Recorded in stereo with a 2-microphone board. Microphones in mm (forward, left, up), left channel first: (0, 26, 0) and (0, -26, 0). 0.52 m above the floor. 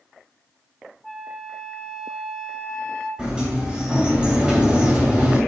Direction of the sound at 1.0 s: 5° left (ahead or behind).